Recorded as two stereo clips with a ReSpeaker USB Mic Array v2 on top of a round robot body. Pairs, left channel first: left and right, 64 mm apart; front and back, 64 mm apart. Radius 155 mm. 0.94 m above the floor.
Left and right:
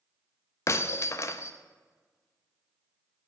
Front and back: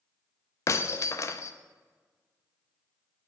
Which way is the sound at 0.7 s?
45° left.